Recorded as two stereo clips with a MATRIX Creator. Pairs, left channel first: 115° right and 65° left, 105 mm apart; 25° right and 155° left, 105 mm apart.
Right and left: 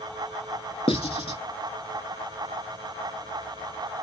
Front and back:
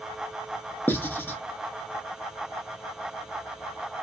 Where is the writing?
90° right, 0.5 m.